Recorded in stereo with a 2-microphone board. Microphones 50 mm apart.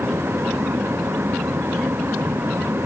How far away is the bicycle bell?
I don't hear a bicycle bell.